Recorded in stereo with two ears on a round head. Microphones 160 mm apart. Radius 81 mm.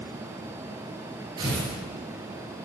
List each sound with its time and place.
1.4 s tearing paper: 25° right (ahead or behind), 5 m